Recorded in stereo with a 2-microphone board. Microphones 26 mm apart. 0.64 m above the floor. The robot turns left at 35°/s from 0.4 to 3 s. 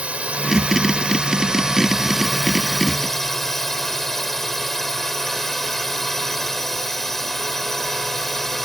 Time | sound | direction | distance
0.0 | a drone | 105° right | ?